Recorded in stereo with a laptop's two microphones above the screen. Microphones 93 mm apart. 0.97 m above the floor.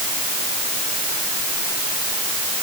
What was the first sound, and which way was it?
Only background noise.